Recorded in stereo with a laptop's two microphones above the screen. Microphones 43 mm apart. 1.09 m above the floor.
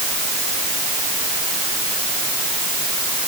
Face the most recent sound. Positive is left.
No sound to turn to.